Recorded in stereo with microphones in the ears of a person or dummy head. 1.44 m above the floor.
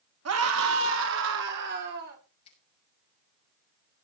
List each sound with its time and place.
0.2 s a scream: 85° right, 3 m; by 2.2 s 55° right (ahead or behind), 4 m
2.5 s a finger snap: 35° left (ahead or behind), 7.5 m